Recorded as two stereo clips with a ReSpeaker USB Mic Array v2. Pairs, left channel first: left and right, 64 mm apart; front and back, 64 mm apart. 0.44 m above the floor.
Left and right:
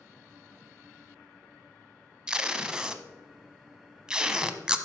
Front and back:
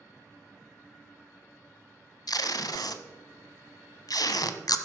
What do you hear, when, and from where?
2.3 s tape being pulled: 10° right, 0.8 m